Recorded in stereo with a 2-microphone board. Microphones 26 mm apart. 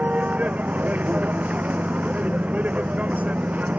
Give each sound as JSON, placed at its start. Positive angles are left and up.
{"t": 0.0, "sound": "a vehicle", "side_deg": -75}